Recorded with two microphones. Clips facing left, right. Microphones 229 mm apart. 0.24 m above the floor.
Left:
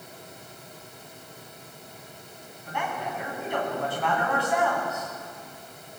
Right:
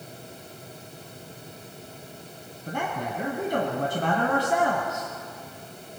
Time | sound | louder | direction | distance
2.7 | a man speaking | right 2 dB | 45° right (ahead or behind) | 1.6 m